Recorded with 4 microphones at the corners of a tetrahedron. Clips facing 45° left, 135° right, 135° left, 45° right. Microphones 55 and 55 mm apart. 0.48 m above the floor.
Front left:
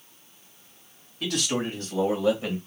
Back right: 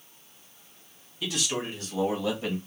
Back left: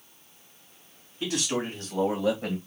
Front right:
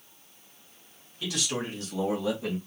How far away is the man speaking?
About 2.5 m.